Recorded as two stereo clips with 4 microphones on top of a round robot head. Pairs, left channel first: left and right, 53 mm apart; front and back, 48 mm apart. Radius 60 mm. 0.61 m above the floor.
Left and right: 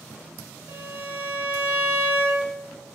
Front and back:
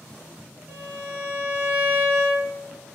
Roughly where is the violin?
Right.